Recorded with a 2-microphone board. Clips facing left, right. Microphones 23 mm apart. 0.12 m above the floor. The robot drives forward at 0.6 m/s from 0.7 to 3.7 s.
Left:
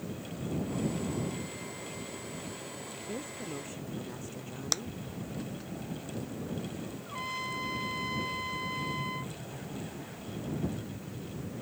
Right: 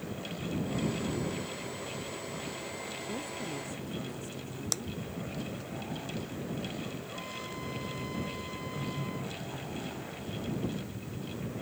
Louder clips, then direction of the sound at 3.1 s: Left 1 dB; 15° left (ahead or behind).